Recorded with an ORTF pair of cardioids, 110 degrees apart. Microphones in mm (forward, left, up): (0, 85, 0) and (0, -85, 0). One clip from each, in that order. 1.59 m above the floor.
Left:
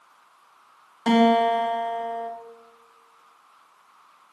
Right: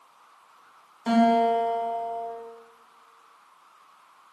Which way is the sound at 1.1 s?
40° left.